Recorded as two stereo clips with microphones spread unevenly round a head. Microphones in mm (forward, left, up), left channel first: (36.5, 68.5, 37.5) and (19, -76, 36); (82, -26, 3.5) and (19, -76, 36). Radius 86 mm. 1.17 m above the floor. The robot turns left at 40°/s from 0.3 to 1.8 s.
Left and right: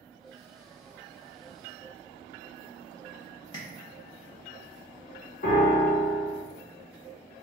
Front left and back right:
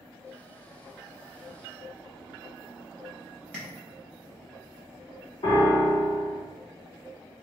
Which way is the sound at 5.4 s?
65° left.